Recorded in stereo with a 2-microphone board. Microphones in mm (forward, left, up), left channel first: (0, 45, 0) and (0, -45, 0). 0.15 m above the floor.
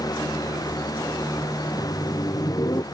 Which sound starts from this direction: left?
Laughter, at 1.6 s.